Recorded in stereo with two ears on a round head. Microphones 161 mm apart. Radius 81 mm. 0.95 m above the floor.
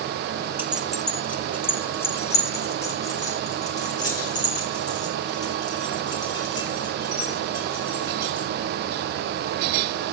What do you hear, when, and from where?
0.6 s keys jangling: 10° right (ahead or behind), 0.8 m; by 8.5 s 25° left (ahead or behind), 8.5 m